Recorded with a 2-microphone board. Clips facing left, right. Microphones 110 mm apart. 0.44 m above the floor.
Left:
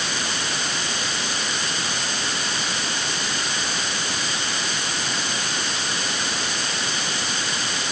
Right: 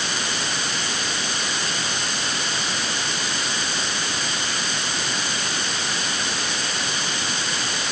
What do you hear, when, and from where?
Only background noise.